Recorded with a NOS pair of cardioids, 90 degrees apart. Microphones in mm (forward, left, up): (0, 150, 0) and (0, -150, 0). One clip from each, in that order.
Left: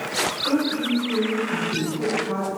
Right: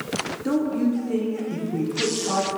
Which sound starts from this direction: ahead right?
A woman speaking, at 0.5 s.